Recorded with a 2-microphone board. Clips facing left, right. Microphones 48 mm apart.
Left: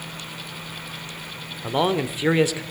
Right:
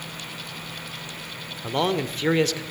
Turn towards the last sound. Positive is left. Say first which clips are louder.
# left 2 dB
turn(degrees=10)  # may be behind; listen again after turning